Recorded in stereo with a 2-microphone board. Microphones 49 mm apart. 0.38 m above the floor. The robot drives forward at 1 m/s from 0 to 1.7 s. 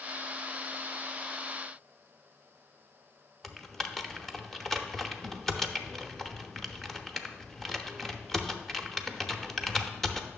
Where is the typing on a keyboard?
5° left (ahead or behind), 0.6 m.